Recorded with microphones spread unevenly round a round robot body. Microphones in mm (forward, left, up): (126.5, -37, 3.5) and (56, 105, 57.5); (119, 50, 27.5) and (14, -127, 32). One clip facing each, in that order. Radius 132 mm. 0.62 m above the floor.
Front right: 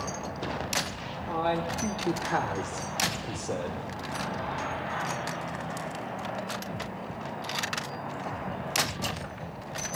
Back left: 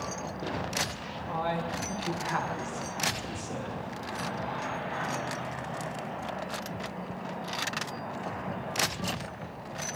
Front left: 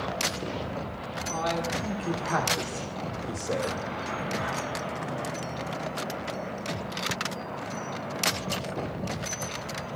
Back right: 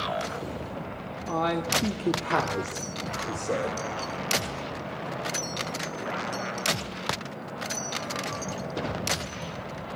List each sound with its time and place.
1.3 s a man speaking: 130° right, 1.7 m; by 3.8 s 45° right, 2.5 m